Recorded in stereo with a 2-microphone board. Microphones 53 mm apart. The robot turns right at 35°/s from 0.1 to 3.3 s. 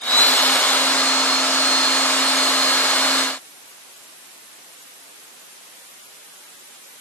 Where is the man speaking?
I don't hear a man speaking.